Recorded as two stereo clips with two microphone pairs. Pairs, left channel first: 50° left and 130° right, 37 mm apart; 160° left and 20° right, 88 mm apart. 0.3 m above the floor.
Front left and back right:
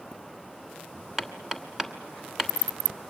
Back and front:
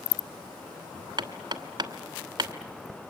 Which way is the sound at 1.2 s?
55° right.